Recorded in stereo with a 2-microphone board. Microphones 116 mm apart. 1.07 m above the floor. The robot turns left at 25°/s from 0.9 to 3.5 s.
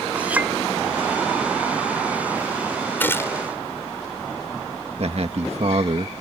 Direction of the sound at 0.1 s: 10° right (ahead or behind).